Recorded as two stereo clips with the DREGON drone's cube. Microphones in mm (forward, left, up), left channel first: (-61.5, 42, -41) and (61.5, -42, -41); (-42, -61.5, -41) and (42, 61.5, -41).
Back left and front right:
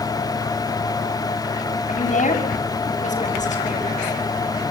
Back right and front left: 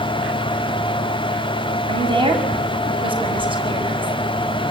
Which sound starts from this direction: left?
A woman speaking, at 1.9 s.